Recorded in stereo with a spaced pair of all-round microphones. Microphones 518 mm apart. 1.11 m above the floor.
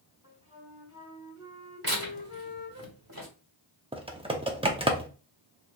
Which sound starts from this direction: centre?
Typing on a keyboard, at 3.9 s.